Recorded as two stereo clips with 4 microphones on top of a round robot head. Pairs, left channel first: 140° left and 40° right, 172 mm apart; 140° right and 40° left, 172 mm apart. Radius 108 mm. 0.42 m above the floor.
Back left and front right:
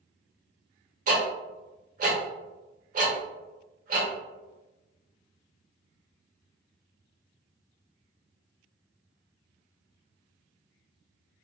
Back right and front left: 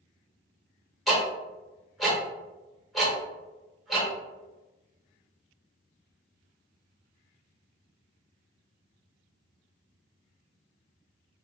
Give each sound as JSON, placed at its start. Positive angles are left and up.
{"t": 1.1, "sound": "ticking", "azimuth_deg": -50, "distance_m": 1.2}